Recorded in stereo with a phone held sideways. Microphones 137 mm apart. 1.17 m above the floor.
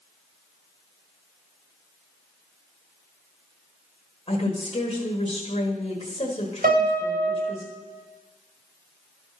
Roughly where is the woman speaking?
Left.